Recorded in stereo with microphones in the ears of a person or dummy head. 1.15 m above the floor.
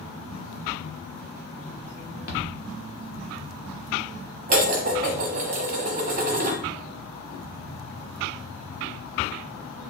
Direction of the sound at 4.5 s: 40° right (ahead or behind).